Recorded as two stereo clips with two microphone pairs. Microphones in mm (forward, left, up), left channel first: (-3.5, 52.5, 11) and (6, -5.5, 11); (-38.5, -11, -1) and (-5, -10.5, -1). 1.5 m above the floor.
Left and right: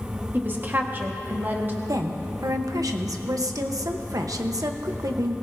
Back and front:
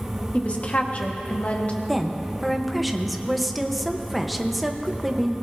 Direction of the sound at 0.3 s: 135° right.